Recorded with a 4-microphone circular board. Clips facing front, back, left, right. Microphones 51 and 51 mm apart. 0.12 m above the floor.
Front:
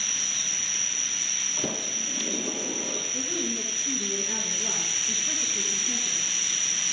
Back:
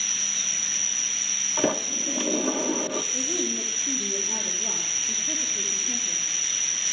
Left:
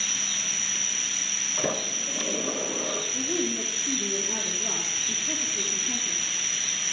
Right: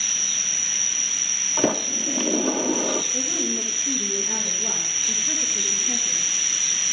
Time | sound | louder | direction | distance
0.0 | an insect | even, even | 40° left | 0.8 m
1.6 | a sliding door | back 9 dB, right 7 dB | 125° right | 0.9 m
3.1 | a woman speaking | back 2 dB, even | 60° right | 2.5 m